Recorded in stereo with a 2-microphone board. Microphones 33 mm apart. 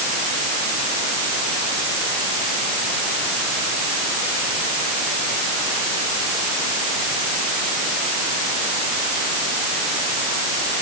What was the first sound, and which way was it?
Only background noise.